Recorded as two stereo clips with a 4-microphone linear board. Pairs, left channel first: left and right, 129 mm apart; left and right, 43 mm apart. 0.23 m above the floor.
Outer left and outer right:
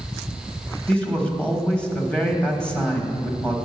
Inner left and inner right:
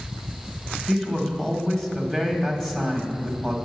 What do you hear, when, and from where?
0.9 s a man speaking: 10° left (ahead or behind), 1.1 m